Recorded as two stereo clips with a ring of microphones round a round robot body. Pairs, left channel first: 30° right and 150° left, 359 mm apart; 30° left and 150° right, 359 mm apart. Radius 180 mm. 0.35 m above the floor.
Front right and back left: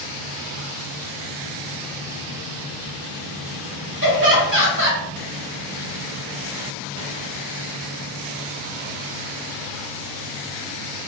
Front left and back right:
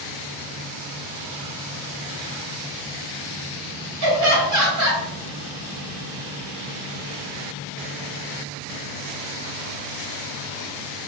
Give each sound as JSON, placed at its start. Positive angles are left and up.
{"t": 4.0, "sound": "laughter", "azimuth_deg": -165, "distance_m": 1.8}